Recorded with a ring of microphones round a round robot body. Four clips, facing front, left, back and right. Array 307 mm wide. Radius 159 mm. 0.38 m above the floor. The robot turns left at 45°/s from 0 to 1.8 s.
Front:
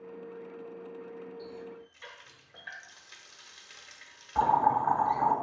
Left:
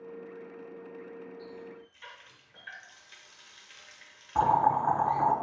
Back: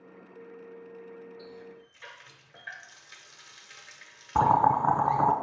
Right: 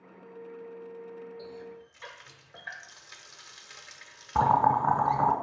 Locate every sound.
1.4 s a running tap: 75° right, 0.6 m; by 5.3 s 90° right, 0.6 m
4.3 s boiling: 150° right, 0.6 m